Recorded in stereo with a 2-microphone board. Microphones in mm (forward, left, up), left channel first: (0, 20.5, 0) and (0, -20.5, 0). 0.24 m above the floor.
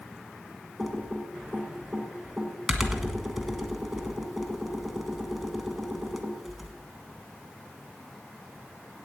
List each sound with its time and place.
0.8 s typing on a keyboard: centre (ahead or behind), 1.3 m